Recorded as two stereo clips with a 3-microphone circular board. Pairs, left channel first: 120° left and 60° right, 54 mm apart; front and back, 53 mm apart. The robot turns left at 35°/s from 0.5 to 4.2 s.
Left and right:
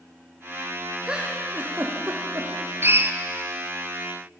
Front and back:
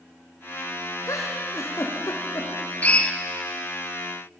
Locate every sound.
1.1 s a giggle: 15° left, 4.5 m; by 2.5 s 35° right, 4.5 m
2.8 s a drill: 50° right, 1.3 m; by 3.1 s 65° right, 1.3 m